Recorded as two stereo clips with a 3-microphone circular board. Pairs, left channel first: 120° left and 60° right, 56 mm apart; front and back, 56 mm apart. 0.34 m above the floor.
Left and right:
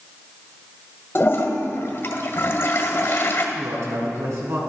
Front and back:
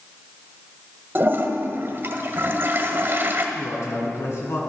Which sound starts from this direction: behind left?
A toilet flushing, at 1.1 s.